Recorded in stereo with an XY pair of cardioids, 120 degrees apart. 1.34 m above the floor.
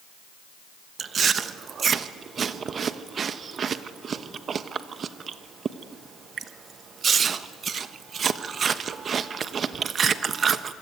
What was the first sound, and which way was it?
Chewing, 40° right.